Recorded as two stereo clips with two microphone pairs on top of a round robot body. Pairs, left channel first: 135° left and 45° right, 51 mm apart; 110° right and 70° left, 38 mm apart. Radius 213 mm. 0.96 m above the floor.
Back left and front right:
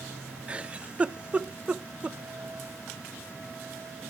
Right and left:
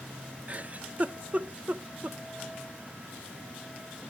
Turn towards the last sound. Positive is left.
turn(degrees=20)